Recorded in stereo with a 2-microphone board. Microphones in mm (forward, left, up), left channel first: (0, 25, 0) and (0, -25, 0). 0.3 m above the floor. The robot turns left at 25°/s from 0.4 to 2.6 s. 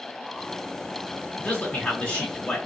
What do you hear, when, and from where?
1.4 s a man speaking: 25° left (ahead or behind), 1.6 m; by 2.7 s 30° left (ahead or behind), 1.6 m